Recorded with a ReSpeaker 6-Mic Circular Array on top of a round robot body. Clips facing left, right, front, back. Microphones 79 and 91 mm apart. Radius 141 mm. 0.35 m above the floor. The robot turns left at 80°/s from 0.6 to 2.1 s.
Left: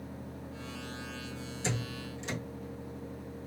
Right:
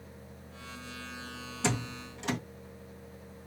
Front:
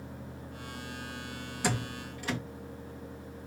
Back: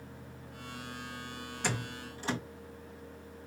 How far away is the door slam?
About 2.5 m.